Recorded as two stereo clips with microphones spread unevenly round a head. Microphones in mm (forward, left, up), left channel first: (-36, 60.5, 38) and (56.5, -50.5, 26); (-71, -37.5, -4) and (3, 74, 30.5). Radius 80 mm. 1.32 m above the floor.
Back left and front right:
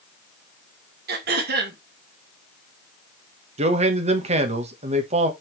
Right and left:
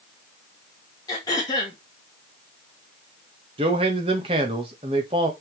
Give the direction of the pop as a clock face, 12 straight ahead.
I don't hear a pop.